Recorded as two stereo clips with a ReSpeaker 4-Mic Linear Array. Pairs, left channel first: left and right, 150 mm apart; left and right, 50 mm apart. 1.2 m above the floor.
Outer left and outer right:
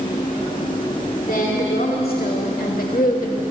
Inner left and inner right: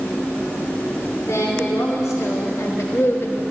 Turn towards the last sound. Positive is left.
turn(degrees=55)  # may be behind; listen again after turning